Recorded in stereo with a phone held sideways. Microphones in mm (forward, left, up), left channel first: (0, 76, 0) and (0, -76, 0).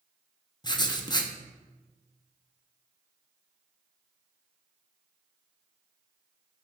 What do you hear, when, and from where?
0.6 s writing: 30° left (ahead or behind), 0.8 m